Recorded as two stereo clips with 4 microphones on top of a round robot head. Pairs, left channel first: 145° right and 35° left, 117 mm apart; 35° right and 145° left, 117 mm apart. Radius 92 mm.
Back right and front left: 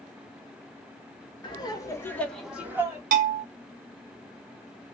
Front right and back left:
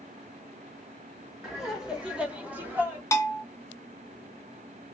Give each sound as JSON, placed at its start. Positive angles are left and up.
{"t": 1.4, "sound": "laughter", "azimuth_deg": -130, "distance_m": 1.4}
{"t": 3.1, "sound": "a bell", "azimuth_deg": 30, "distance_m": 0.6}